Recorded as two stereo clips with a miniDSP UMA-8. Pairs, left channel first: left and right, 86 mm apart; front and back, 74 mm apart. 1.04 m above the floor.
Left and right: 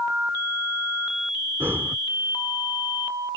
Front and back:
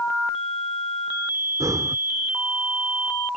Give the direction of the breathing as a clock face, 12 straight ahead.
5 o'clock.